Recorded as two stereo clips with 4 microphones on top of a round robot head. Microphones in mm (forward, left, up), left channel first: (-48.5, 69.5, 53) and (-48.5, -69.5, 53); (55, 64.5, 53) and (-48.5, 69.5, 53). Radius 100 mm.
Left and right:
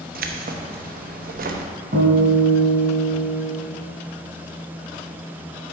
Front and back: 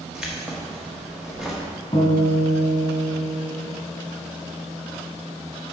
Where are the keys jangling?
95° right, 0.8 m.